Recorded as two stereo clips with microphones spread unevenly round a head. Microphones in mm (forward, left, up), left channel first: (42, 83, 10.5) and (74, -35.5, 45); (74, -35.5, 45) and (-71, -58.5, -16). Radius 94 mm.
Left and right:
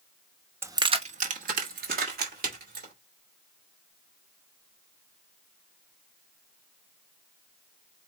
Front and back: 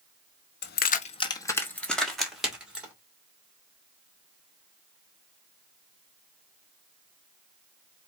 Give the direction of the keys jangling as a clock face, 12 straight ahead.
12 o'clock.